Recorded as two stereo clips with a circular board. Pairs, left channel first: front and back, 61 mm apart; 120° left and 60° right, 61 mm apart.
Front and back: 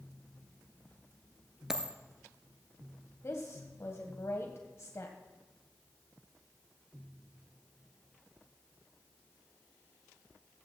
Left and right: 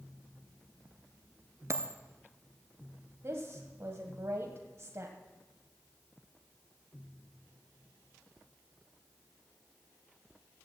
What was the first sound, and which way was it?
A dropped coin, 100° right.